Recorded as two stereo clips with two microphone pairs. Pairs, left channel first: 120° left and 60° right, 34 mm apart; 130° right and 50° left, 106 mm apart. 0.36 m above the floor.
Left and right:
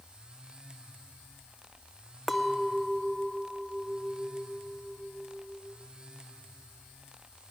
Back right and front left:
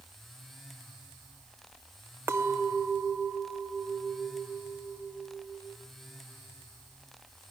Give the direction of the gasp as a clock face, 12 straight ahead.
No gasp in this recording.